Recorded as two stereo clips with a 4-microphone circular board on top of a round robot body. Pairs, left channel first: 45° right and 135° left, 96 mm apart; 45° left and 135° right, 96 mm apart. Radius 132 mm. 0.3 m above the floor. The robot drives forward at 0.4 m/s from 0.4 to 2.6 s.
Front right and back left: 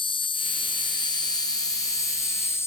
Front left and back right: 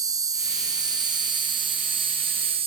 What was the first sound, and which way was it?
An insect, 80° right.